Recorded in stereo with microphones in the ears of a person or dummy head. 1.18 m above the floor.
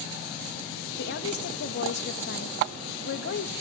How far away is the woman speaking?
About 1.9 m.